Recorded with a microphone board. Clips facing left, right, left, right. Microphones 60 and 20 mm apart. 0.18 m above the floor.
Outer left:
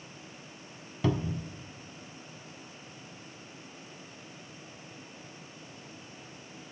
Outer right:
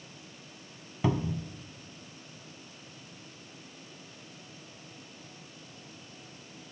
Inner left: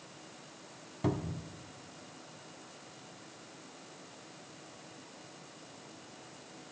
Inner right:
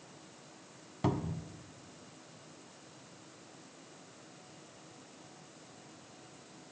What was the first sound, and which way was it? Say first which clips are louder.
A cupboard door: even, even; 15° right (ahead or behind).